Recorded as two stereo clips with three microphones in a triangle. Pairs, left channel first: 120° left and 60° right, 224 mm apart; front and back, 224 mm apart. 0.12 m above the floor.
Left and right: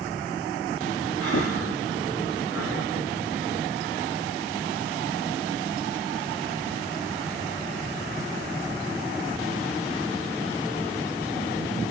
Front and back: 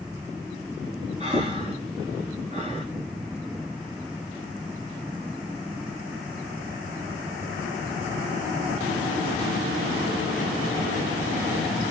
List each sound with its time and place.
1.2 s breathing: 120° left, 7.5 m